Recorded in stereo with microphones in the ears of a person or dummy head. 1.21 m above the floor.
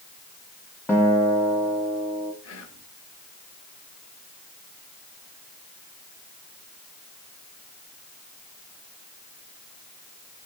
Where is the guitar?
10° left (ahead or behind), 1.8 m.